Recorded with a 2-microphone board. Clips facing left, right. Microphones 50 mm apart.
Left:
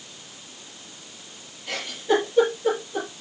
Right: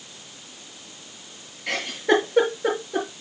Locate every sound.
1.7 s a giggle: 80° right, 6 m